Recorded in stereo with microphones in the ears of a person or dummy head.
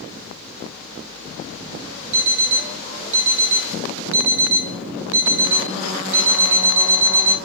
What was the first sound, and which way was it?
An alarm clock, 40° right (ahead or behind).